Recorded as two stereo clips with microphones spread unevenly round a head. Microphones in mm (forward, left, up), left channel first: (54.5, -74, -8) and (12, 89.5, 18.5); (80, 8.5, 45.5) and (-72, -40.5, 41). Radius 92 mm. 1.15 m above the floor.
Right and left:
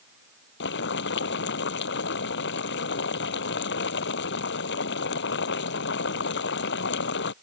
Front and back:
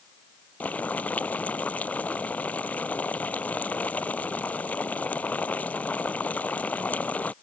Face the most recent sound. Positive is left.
turn(degrees=-60)